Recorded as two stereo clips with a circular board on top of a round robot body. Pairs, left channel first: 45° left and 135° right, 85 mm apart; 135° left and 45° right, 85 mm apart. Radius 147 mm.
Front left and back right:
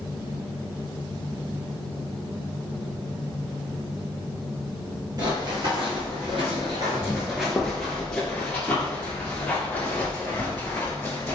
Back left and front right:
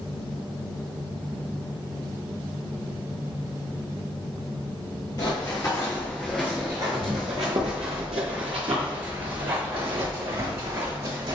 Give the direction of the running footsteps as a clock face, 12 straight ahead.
6 o'clock.